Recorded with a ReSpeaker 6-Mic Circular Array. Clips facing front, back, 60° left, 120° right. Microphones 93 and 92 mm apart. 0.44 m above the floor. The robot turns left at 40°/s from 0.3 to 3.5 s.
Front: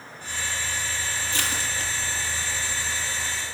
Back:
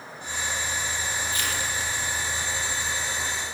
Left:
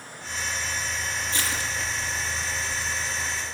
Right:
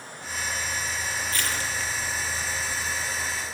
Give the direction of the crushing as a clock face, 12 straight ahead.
12 o'clock.